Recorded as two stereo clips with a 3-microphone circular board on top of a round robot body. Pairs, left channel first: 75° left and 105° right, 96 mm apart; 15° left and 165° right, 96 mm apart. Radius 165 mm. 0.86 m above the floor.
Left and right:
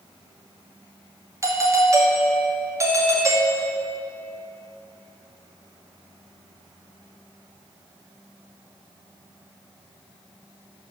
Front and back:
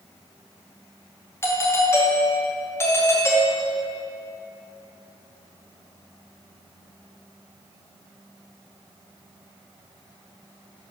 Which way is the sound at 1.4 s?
50° right.